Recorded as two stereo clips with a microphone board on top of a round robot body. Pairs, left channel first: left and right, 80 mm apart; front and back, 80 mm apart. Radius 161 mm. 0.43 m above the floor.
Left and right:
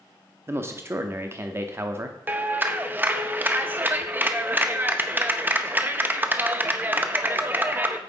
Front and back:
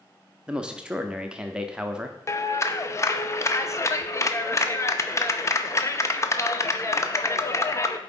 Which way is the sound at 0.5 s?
110° right.